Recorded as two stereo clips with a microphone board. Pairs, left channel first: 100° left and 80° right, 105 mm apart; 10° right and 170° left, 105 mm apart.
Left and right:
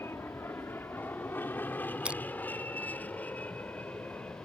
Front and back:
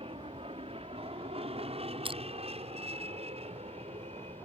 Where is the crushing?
160° right.